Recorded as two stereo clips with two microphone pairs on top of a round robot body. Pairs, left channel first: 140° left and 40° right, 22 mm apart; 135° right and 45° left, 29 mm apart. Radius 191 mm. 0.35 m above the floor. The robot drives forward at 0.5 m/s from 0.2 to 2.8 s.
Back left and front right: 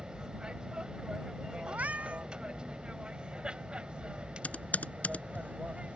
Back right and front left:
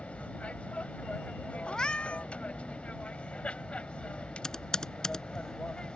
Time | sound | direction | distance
0.0 | an aircraft | 95° right | ?
1.7 | a cat meowing | 60° right | ?
4.4 | typing on a keyboard | 155° left | ?